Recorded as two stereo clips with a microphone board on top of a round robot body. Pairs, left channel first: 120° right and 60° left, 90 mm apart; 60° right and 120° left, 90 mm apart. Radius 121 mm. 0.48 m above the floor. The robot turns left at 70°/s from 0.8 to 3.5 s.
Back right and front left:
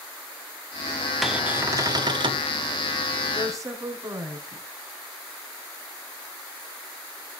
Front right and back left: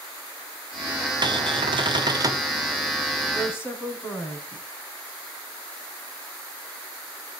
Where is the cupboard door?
145° left, 1.7 m; by 2.5 s 60° left, 1.7 m.